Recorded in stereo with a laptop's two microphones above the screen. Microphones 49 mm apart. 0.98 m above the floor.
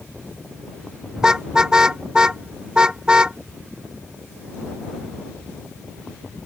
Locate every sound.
1.2 s a car horn: 15° right (ahead or behind); by 3.4 s 20° right (ahead or behind)